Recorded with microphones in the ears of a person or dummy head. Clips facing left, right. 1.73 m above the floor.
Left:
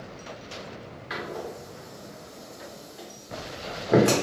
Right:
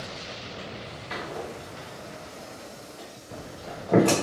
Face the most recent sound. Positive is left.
turn(degrees=10)  # may be behind; listen again after turning